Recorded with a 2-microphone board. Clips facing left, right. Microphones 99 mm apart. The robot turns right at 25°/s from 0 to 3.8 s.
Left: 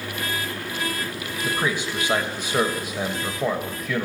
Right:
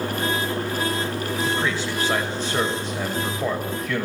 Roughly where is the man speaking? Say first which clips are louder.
Left 2 dB; centre.